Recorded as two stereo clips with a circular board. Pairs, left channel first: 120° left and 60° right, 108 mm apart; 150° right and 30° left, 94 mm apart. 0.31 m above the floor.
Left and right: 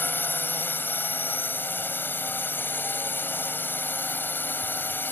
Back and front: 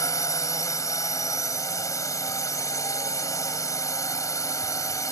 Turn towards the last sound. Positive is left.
turn(degrees=180)